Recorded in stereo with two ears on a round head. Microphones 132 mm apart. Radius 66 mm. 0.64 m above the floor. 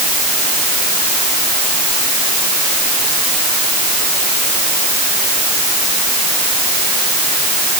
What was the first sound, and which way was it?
Only background noise.